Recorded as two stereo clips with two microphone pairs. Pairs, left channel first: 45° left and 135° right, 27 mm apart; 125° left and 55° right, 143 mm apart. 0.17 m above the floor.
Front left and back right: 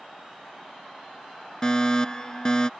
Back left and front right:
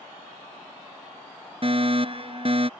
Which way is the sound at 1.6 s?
15° right.